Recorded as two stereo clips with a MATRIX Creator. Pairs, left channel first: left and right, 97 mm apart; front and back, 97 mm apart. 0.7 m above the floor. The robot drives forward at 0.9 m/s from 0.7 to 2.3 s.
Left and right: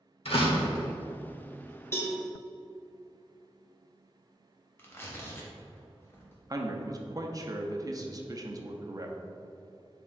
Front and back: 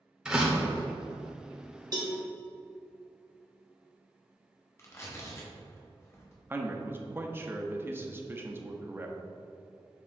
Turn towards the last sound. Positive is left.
turn(degrees=-125)